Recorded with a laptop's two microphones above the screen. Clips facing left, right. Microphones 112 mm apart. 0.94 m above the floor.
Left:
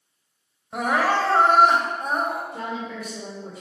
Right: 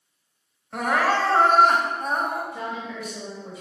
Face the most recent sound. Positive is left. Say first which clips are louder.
# left 1 dB
turn(degrees=45)  # may be behind; listen again after turning